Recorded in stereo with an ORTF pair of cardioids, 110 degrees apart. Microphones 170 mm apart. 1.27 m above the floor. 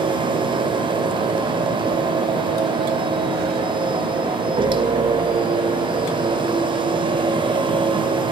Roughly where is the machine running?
Ahead right.